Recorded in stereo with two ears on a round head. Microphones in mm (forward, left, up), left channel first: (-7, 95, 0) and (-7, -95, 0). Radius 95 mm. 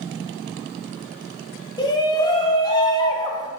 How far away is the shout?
About 1.5 m.